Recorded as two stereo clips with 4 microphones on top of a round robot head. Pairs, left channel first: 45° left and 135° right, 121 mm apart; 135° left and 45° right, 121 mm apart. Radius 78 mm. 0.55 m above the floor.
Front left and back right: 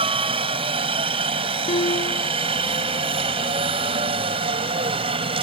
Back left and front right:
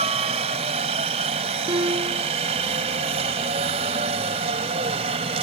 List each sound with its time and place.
0.0 s a helicopter: 90° right
1.7 s a piano: 10° left